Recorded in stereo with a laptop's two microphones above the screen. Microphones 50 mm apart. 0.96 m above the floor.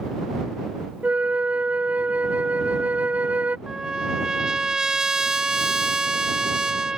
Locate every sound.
1.0 s a flute: 30° right (ahead or behind)
3.7 s a trumpet: 15° right (ahead or behind)